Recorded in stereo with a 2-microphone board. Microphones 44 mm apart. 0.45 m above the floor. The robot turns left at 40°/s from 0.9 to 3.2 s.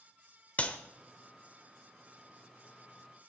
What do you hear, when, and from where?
0.6 s a clap: 35° left (ahead or behind), 1.2 m